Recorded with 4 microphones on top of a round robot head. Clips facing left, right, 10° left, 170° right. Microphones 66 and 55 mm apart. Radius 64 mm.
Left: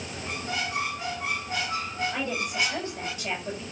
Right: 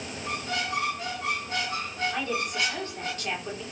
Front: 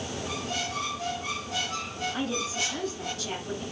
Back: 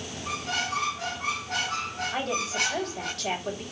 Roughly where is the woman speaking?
Behind.